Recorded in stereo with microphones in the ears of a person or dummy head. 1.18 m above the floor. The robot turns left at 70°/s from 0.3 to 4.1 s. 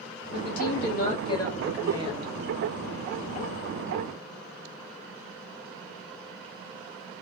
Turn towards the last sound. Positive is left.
turn(degrees=-170)